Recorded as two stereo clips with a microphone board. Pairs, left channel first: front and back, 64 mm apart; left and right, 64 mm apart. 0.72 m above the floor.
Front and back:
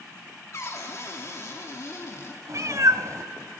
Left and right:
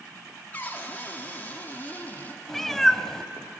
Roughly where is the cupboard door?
Ahead left.